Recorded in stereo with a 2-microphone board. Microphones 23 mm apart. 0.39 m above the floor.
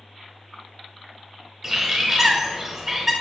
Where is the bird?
15° right (ahead or behind), 0.8 m.